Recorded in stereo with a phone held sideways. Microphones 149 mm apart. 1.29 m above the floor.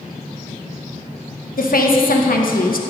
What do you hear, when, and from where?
1.6 s a woman speaking: 80° left, 1.1 m